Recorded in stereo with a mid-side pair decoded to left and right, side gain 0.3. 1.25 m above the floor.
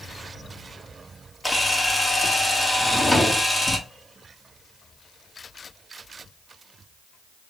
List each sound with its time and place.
1.4 s a camera shutter: 25° left, 1.6 m
2.8 s a drawer: 25° left, 1.6 m